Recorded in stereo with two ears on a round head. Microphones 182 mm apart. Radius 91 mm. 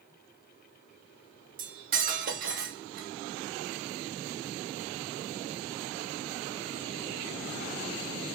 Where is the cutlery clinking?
45° right (ahead or behind), 0.8 m.